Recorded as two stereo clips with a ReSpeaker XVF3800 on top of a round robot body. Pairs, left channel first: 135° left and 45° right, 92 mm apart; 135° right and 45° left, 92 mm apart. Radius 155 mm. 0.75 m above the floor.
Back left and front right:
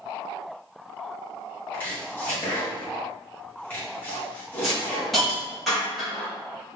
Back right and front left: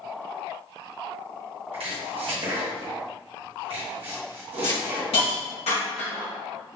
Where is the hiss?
135° right, 1.7 m.